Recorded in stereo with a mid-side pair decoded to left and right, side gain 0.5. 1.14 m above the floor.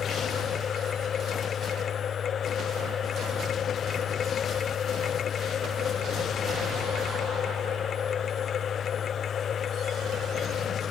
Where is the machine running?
50° left.